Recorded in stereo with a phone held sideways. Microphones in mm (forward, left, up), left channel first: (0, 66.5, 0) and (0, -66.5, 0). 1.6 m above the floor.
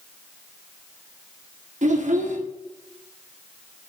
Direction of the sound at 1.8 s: 60° right (ahead or behind).